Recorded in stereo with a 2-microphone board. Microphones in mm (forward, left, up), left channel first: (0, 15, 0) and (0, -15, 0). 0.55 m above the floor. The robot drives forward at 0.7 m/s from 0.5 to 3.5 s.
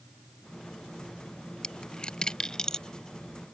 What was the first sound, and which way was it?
A dropped coin, 30° left (ahead or behind).